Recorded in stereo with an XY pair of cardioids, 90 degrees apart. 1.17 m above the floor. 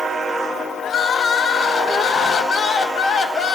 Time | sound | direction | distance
0.8 | crying | 60° left | 0.9 m